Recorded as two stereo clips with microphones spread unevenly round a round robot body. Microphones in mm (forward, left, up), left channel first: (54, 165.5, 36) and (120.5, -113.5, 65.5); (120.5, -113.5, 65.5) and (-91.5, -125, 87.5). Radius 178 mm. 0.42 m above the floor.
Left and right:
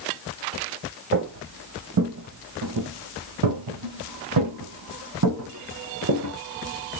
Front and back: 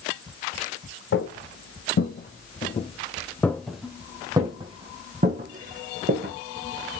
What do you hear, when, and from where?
1.1 s footsteps: 30° right, 1.6 m; by 6.3 s 135° right, 2.0 m